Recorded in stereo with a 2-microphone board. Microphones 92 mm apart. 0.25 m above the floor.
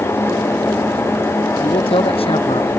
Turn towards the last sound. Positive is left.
turn(degrees=85)